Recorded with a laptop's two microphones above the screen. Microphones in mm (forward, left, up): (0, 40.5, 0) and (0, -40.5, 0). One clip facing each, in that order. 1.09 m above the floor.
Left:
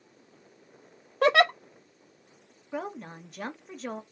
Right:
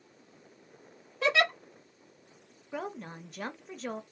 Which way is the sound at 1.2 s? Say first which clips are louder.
Left 6 dB; 50° left (ahead or behind).